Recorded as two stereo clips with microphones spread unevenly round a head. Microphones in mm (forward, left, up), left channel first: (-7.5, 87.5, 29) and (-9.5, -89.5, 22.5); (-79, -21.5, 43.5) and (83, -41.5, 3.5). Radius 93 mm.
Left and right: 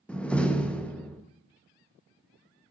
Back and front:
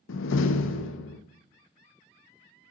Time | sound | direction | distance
0.1 | a door slam | 175° left | 0.6 m